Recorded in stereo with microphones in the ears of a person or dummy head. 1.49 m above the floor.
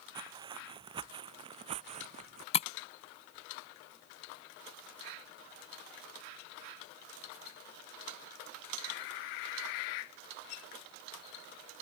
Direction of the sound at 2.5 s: 35° left (ahead or behind).